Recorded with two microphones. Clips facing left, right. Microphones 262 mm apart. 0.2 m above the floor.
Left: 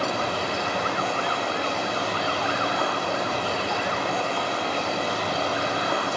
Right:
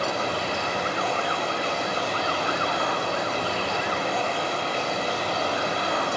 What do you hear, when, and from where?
0.0 s running water: 75° left (ahead or behind), 1.9 m